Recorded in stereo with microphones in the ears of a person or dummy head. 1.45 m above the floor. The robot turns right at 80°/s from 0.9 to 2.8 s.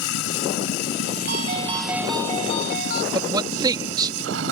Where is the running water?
100° left; by 4.5 s 110° right.